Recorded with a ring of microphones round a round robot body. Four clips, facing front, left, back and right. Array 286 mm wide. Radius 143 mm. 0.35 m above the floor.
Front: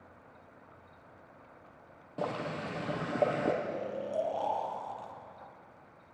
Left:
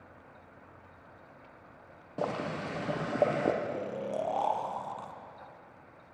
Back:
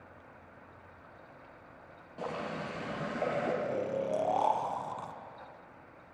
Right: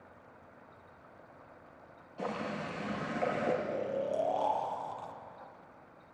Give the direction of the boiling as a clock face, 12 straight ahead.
10 o'clock.